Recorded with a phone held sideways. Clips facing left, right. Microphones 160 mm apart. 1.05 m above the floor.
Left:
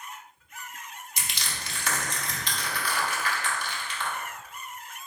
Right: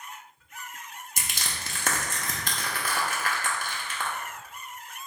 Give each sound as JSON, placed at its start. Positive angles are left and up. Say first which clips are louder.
{"t": 1.2, "sound": "crushing", "louder": "right 1 dB", "side_deg": -50, "distance_m": 0.7}